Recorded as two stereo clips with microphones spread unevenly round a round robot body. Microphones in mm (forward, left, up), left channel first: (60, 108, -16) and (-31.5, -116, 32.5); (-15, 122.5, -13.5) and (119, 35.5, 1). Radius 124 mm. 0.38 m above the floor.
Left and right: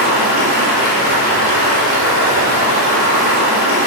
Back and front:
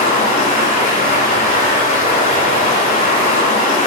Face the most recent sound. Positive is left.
turn(degrees=-150)